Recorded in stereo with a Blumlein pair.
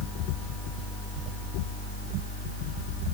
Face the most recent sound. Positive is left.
No sound to turn to.